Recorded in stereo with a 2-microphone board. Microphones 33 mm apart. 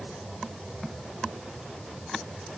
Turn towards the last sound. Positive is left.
No sound to turn to.